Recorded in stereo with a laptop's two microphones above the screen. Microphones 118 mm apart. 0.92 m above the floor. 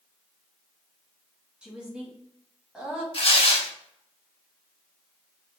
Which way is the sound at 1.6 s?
5° right (ahead or behind).